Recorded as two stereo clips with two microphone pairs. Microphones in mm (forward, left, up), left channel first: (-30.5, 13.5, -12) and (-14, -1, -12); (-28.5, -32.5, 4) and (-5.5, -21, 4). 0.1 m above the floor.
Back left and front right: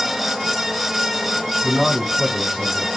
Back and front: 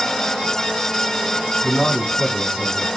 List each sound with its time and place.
1.6 s a man speaking: 35° right, 5 m